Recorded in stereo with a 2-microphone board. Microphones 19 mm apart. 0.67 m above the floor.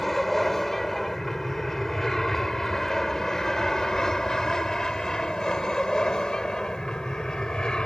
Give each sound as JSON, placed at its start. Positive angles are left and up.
{"t": 0.0, "sound": "an aircraft", "side_deg": 10}